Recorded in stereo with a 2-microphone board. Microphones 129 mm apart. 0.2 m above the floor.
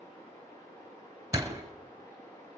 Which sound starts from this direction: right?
A door slam, at 1.3 s.